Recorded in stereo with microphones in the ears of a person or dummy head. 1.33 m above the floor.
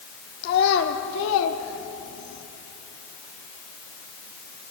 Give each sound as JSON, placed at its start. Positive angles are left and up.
{"t": 0.4, "sound": "a child speaking", "side_deg": 55, "distance_m": 1.9}